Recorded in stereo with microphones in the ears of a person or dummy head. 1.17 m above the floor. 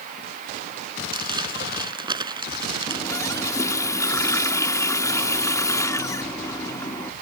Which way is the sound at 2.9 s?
15° left (ahead or behind).